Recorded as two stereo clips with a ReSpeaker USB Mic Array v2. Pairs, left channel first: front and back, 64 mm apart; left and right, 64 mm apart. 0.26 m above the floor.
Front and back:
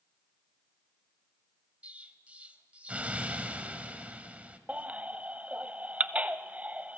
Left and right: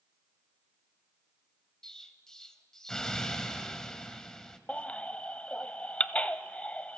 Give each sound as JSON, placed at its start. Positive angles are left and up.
{"t": 1.8, "sound": "an explosion", "azimuth_deg": 160, "distance_m": 1.2}
{"t": 4.7, "sound": "a baby crying", "azimuth_deg": 140, "distance_m": 0.7}